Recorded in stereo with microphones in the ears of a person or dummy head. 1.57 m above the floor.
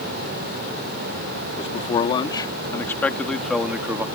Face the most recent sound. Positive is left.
turn(degrees=-10)  # may be behind; listen again after turning